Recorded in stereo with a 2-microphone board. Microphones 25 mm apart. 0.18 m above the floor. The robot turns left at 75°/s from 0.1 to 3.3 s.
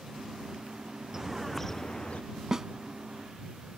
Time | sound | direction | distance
1.1 | a bird | 155° right | ?
2.5 | a snare drum | 25° right (ahead or behind) | ?